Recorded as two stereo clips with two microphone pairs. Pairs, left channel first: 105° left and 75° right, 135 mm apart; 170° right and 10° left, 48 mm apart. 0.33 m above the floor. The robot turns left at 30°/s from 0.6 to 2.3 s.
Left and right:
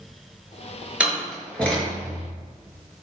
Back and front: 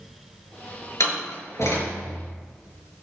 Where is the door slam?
155° right, 5 m; by 2.2 s 170° left, 5 m.